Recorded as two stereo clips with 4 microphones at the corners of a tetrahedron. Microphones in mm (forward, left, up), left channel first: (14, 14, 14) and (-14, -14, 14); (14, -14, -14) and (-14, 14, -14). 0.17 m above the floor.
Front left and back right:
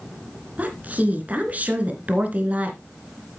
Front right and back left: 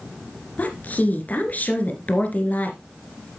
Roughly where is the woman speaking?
Right.